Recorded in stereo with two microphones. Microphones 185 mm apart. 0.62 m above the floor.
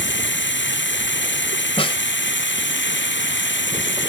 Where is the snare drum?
30° left (ahead or behind).